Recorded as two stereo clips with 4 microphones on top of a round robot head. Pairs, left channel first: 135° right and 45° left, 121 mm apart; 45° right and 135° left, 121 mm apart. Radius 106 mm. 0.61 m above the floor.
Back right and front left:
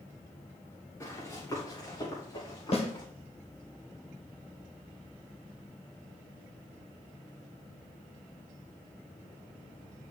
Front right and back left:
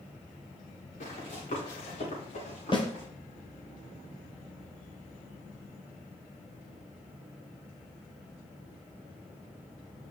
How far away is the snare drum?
About 1.8 m.